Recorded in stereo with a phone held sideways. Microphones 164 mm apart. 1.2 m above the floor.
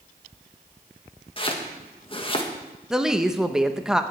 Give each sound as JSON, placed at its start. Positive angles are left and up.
{"t": 1.4, "sound": "chopping", "side_deg": 35, "distance_m": 1.4}
{"t": 2.9, "sound": "a woman speaking", "side_deg": -5, "distance_m": 0.8}